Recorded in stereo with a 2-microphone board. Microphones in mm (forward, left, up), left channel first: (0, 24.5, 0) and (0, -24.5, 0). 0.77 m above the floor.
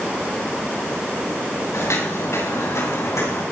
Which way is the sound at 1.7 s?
80° left.